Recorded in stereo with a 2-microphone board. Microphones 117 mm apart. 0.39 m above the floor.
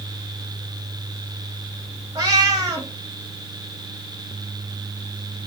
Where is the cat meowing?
35° right (ahead or behind), 1.1 m.